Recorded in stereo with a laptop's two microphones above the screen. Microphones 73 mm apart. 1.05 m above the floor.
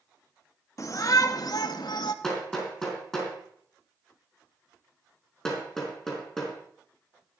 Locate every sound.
0.8 s a shout: 45° left (ahead or behind), 1.5 m; by 2.1 s 75° left (ahead or behind), 1.5 m
2.2 s hammering: 5° left (ahead or behind), 4.5 m